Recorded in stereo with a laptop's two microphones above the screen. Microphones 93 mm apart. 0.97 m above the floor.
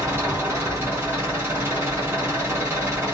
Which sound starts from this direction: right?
An engine running, at 0.0 s.